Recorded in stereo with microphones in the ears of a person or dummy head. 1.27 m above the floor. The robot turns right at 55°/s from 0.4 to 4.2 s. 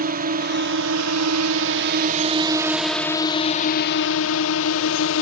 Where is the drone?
130° right; by 5.2 s 80° left.